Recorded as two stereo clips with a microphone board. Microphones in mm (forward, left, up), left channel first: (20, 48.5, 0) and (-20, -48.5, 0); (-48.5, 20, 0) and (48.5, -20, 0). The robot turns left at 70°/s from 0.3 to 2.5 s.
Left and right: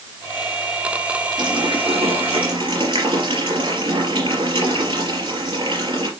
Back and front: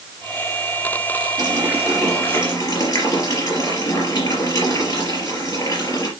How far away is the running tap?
About 5 m.